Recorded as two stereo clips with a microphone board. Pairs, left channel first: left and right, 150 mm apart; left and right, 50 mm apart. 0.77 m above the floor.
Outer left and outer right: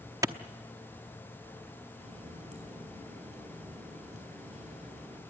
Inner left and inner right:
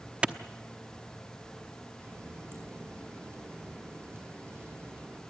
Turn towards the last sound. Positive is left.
turn(degrees=-50)  # may be behind; listen again after turning